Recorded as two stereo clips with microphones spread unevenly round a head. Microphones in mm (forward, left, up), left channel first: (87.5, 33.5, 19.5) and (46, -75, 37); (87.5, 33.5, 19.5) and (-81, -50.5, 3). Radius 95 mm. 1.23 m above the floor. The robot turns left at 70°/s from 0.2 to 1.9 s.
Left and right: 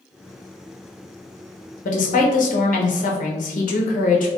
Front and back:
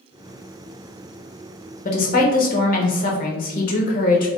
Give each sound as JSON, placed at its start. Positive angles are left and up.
{"t": 1.9, "sound": "a woman speaking", "azimuth_deg": 80, "distance_m": 0.8}